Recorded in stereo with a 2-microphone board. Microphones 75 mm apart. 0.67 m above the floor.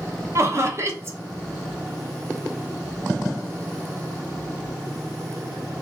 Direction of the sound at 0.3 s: 40° right (ahead or behind).